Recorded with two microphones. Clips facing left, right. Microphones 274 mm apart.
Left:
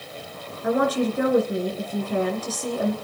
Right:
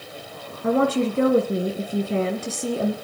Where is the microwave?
No microwave in this recording.